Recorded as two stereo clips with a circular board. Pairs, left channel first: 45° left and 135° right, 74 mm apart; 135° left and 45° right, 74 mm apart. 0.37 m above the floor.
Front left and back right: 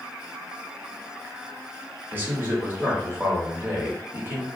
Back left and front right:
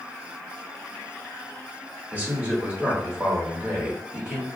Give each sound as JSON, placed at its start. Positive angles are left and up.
{"t": 2.1, "sound": "a man speaking", "azimuth_deg": -95, "distance_m": 0.9}